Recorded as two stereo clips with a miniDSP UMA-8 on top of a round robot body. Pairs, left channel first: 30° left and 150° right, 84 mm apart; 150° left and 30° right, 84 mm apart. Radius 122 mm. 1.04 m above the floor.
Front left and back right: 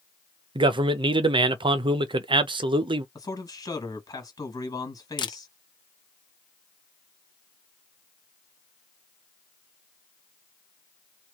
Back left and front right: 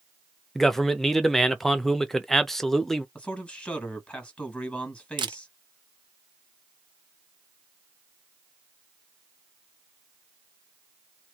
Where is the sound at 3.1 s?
75° left, 1.8 m.